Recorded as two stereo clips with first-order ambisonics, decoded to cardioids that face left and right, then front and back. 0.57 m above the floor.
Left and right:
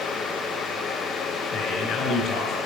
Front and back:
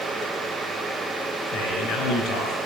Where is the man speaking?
40° left, 4.5 m.